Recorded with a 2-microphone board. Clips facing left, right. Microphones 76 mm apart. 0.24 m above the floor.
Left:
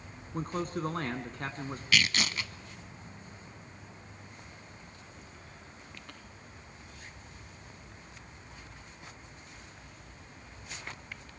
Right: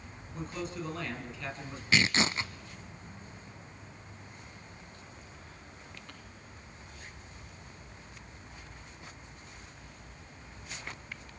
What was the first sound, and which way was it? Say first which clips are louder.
A man speaking: left 4 dB; 50° left (ahead or behind).